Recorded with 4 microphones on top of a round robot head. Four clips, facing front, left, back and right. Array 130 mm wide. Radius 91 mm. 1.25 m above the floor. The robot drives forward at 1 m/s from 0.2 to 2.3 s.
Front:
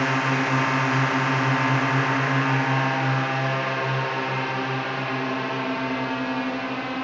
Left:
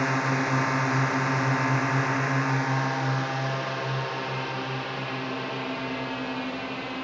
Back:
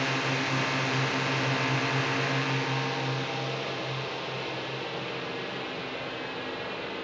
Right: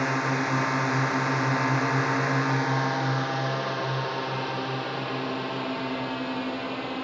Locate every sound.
0.0 s a drone: 5° right; by 7.0 s 15° right